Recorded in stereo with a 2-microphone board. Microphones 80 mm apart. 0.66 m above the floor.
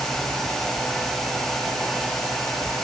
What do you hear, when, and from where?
Only background noise.